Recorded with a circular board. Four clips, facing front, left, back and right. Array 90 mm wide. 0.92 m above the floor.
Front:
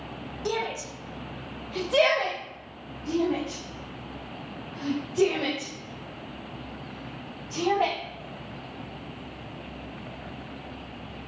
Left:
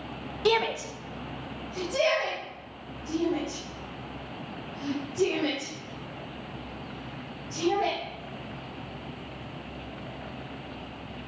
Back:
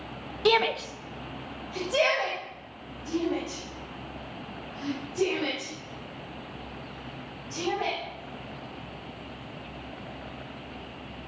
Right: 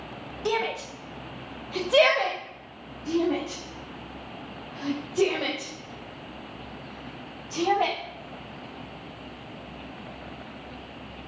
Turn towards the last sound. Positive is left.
turn(degrees=-65)